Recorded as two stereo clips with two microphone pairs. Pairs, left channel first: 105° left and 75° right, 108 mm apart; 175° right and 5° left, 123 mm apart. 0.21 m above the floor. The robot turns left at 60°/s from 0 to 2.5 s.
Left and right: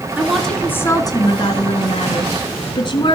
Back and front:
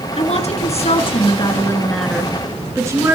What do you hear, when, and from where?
0.2 s a woman speaking: 150° right, 2.5 m; by 3.2 s 65° left, 2.5 m